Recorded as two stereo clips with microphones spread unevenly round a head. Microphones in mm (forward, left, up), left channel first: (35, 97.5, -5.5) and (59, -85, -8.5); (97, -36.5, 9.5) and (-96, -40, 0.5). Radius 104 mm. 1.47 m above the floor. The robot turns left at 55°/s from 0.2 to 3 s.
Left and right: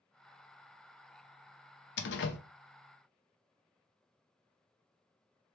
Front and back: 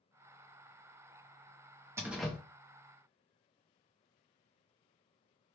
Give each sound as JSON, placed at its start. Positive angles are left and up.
{"t": 2.0, "sound": "a door slam", "azimuth_deg": 105, "distance_m": 0.6}